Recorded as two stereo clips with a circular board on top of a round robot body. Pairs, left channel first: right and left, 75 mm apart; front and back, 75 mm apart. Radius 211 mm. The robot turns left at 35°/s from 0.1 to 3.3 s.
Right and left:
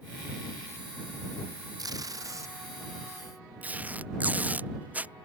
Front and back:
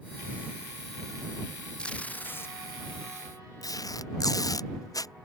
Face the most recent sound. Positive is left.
turn(degrees=25)